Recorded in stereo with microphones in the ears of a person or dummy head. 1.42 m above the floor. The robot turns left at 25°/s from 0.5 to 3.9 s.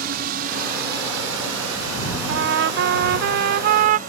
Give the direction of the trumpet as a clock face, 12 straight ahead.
3 o'clock.